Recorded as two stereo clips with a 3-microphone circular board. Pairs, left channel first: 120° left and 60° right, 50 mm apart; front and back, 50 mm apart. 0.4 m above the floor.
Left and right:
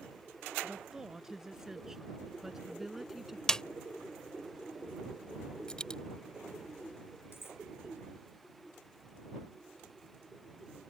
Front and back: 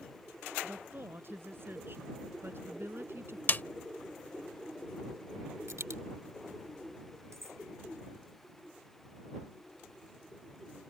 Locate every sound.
0.6 s a woman speaking: 140° right; by 3.4 s 145° right
3.5 s a snare drum: 45° left
5.7 s a dropped coin: 165° right
7.3 s cutlery clinking: 160° left